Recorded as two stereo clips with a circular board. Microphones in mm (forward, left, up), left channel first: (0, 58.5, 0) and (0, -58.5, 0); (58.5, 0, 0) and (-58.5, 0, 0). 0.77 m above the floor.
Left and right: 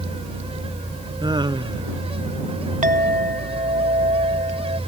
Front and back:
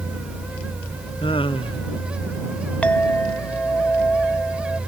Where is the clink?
80° right.